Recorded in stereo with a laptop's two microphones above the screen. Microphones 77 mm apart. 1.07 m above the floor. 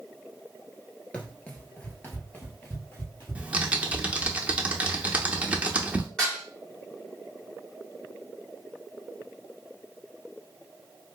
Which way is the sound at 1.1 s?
15° left (ahead or behind).